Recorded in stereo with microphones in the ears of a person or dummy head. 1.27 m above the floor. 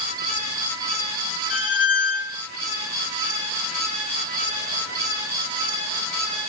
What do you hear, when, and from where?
1.5 s a squeak: 20° right (ahead or behind), 1.7 m